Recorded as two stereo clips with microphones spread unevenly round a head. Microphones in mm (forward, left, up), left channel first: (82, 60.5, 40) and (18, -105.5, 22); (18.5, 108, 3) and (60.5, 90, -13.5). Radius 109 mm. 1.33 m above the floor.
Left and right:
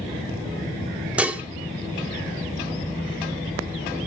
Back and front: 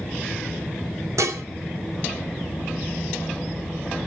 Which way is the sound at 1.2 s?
25° right.